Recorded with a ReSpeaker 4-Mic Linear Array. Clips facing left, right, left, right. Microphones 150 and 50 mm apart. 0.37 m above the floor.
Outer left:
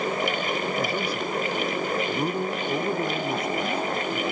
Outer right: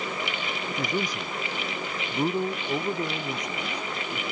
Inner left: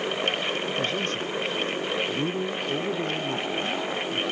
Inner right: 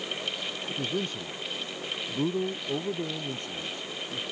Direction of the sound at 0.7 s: 15° right (ahead or behind).